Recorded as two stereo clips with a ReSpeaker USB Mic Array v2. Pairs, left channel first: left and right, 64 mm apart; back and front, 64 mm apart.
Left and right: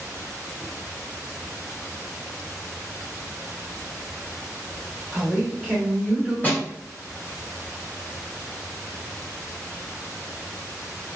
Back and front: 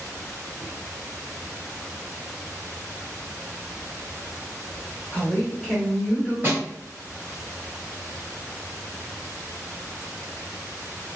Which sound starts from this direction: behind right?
A man speaking, at 5.1 s.